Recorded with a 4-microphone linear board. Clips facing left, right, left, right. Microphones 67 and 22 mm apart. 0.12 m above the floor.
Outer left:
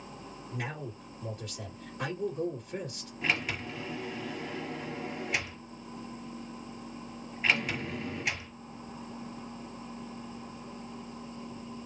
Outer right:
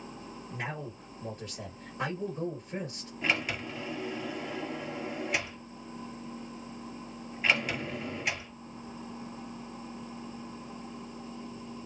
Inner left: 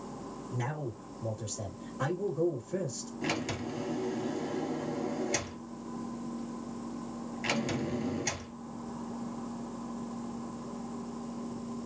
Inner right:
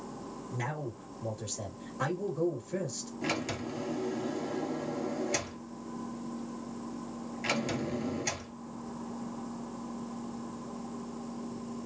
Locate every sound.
0.5 s a man speaking: 15° right (ahead or behind), 2.0 m
3.2 s a sliding door: centre (ahead or behind), 1.1 m